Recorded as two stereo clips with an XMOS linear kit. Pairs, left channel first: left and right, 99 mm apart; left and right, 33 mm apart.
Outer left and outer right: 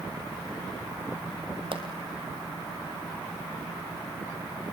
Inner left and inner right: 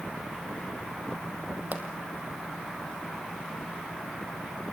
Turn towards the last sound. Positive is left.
turn(degrees=-60)  # may be behind; listen again after turning